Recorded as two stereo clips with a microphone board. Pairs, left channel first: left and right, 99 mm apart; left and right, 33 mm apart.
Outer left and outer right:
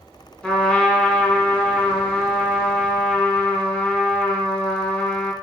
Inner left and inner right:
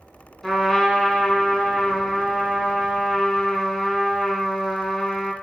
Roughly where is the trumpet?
Centre.